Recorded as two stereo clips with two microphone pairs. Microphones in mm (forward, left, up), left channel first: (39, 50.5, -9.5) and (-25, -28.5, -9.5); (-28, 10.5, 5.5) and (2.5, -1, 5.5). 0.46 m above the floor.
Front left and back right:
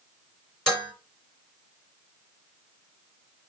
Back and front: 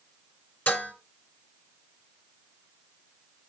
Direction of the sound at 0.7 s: 130° left.